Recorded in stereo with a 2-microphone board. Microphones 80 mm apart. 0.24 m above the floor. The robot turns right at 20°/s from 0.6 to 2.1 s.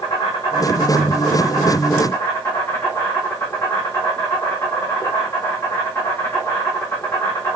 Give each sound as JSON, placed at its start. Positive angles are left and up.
{"t": 0.0, "sound": "an insect", "azimuth_deg": 120, "distance_m": 2.0}